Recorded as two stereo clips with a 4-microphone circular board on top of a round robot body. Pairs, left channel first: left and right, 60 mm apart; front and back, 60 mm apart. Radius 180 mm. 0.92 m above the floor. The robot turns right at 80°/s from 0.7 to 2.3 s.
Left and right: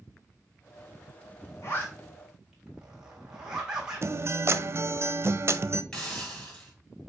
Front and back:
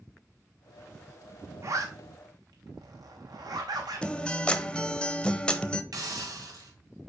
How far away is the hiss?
About 3 m.